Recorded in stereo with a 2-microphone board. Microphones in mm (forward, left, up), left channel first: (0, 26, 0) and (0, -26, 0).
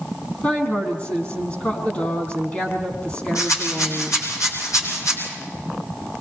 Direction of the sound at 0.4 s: 30° left (ahead or behind).